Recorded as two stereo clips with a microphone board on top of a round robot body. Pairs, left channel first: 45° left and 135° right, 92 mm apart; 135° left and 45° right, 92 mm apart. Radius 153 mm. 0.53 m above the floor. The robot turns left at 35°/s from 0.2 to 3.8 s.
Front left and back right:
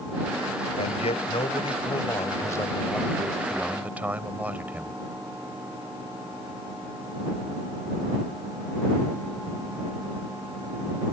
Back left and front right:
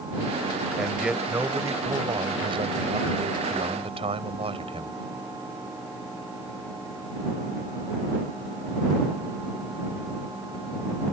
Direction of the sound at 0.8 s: 45° left.